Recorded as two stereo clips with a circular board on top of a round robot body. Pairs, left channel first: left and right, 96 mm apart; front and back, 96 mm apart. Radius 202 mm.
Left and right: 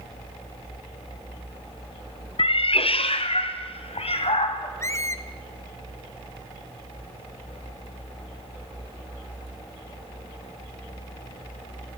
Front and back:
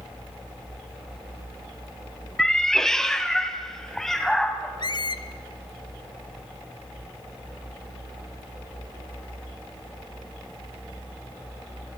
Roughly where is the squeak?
Ahead left.